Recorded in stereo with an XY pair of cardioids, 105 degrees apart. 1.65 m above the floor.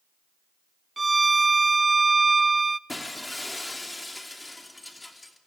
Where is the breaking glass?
10° left, 2.5 m.